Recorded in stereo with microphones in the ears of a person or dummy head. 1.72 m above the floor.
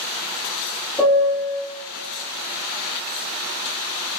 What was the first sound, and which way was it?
A piano, 10° left (ahead or behind).